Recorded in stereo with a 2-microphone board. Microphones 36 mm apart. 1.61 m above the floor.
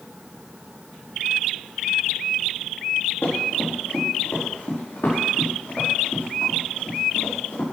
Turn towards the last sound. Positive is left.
turn(degrees=65)  # may be behind; listen again after turning